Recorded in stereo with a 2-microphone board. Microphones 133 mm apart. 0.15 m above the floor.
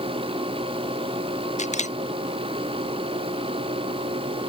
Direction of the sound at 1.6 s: 60° left (ahead or behind).